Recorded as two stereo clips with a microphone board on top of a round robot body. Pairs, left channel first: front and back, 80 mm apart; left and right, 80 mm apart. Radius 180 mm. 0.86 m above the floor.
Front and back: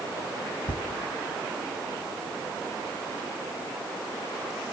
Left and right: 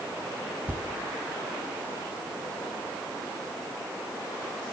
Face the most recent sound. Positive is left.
turn(degrees=-20)